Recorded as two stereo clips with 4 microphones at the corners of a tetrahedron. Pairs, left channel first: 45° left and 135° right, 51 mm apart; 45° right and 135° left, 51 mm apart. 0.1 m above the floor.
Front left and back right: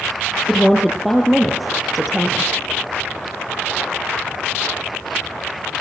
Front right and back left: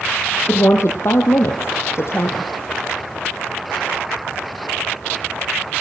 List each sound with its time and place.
0.5 s a woman speaking: 50° right, 2.5 m